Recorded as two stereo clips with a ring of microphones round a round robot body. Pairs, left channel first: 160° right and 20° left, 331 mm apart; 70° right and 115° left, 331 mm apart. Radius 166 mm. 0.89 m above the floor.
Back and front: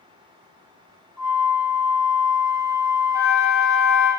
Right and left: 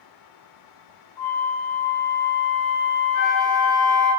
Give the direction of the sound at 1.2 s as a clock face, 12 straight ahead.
2 o'clock.